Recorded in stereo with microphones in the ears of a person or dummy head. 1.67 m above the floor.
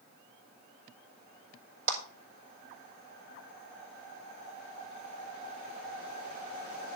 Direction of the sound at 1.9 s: 45° right (ahead or behind).